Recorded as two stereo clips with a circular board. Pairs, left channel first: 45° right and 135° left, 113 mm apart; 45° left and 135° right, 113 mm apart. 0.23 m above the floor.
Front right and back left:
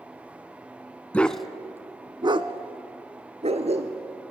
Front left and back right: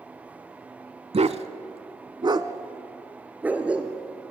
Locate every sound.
1.1 s a dog barking: 120° right, 0.7 m; by 4.3 s 140° left, 1.8 m